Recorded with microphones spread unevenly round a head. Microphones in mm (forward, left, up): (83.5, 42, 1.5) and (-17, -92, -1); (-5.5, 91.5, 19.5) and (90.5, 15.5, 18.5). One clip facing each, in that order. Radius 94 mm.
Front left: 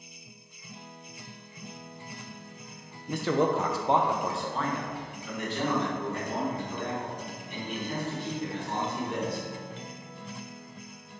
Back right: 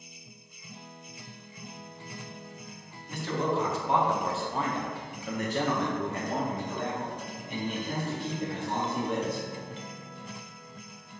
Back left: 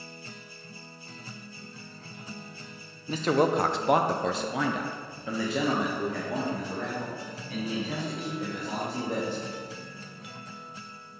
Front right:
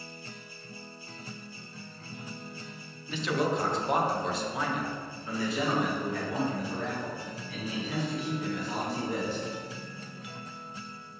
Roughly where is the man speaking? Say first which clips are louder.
Front left 4 dB, back left 5 dB; left.